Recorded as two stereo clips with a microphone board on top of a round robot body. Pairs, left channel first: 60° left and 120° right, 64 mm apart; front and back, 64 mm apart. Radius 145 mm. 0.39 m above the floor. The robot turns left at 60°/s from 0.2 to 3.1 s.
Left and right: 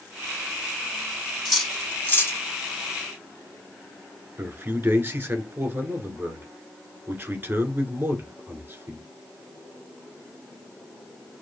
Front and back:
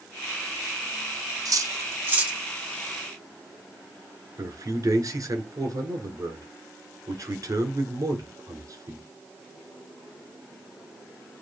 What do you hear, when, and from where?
1.4 s cutlery clinking: 150° left, 1.4 m; by 2.4 s 95° left, 1.4 m
4.4 s a man speaking: 165° right, 1.9 m